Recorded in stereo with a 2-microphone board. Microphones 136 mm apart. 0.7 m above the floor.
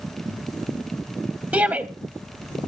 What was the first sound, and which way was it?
A shout, 15° right (ahead or behind).